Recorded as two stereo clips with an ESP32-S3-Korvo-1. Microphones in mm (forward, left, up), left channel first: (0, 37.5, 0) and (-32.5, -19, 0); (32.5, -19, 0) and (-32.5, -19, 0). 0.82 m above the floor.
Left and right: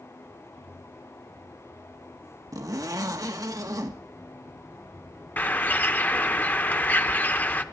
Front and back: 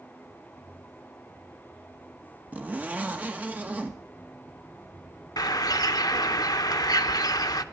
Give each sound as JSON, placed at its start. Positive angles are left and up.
{"t": 2.5, "sound": "a zipper", "azimuth_deg": -115, "distance_m": 1.4}
{"t": 5.4, "sound": "a bird", "azimuth_deg": 0, "distance_m": 0.9}